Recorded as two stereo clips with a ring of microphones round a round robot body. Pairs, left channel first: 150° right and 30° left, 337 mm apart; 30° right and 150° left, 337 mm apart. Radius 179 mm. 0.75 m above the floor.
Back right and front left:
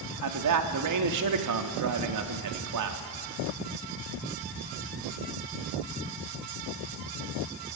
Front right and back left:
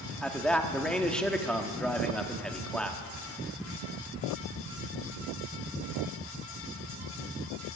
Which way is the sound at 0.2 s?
55° left.